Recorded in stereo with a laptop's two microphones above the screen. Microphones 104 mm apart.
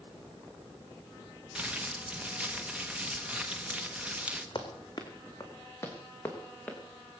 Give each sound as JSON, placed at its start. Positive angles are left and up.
{"t": 1.6, "sound": "crumpling", "side_deg": -10, "distance_m": 1.0}
{"t": 4.5, "sound": "running footsteps", "side_deg": 45, "distance_m": 3.5}